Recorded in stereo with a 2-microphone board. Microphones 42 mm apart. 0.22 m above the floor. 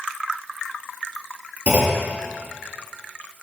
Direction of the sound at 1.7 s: 35° right (ahead or behind).